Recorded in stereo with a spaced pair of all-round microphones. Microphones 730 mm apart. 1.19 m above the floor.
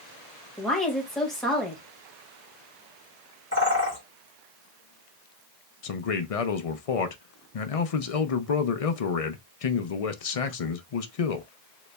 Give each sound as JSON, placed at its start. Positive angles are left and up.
{"t": 0.6, "sound": "a woman speaking", "side_deg": 0, "distance_m": 1.6}
{"t": 3.5, "sound": "a bird", "side_deg": 15, "distance_m": 1.9}
{"t": 5.8, "sound": "a man speaking", "side_deg": 55, "distance_m": 0.6}